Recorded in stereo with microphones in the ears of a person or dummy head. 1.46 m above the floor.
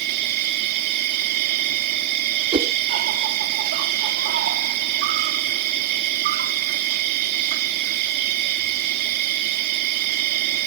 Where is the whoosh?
30° right (ahead or behind).